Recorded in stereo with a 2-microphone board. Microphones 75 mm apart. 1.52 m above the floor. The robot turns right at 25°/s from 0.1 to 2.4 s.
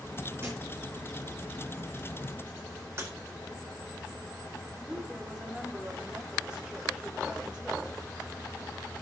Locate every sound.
0.4 s a thud: 30° right (ahead or behind), 8 m; by 0.6 s 25° right (ahead or behind), 8 m
3.0 s breaking glass: 35° right (ahead or behind), 4 m
4.8 s a woman speaking: 10° right (ahead or behind), 5 m